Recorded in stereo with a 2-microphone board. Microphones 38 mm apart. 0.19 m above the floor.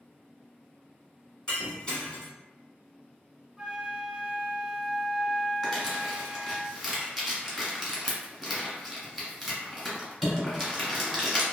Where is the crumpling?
5° left (ahead or behind), 1.5 m.